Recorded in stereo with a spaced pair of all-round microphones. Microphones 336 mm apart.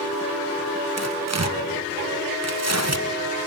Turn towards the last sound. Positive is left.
turn(degrees=-50)  # may be behind; listen again after turning